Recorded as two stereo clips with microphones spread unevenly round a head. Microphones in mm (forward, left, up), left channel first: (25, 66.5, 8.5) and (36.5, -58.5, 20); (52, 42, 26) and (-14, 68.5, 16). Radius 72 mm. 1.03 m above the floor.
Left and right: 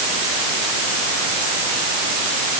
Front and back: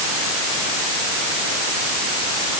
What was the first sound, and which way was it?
Only background noise.